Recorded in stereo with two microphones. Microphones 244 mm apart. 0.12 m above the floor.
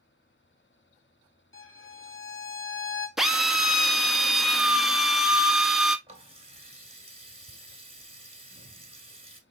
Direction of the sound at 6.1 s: 25° right (ahead or behind).